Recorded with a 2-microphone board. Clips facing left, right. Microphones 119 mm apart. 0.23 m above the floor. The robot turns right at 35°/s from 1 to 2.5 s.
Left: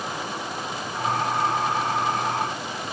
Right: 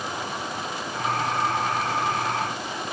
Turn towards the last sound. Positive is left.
No sound to turn to.